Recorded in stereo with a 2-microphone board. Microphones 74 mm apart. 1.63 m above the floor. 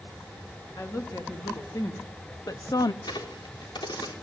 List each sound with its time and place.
0.8 s a woman speaking: 45° left (ahead or behind), 3.5 m; by 2.9 s 60° left (ahead or behind), 0.6 m
3.0 s a crack: 75° left (ahead or behind), 4 m